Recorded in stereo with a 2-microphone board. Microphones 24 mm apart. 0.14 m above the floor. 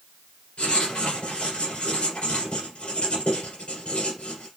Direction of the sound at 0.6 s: 60° left (ahead or behind).